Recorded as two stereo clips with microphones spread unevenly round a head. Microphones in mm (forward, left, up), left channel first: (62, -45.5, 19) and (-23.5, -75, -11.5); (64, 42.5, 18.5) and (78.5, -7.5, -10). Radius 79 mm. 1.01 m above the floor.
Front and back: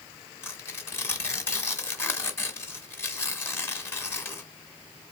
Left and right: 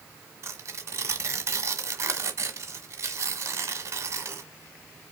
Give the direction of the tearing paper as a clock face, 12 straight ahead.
1 o'clock.